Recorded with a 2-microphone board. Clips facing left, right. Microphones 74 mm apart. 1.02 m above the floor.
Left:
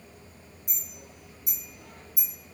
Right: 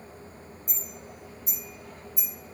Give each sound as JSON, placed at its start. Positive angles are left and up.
{"t": 0.7, "sound": "a clink", "side_deg": 70, "distance_m": 1.7}